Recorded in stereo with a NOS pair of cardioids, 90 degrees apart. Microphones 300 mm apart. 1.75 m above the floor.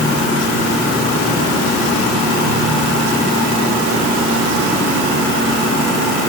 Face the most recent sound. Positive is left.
No sound to turn to.